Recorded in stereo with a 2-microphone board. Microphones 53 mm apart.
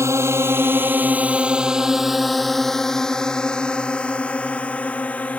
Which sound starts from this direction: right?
A drone, at 0.0 s.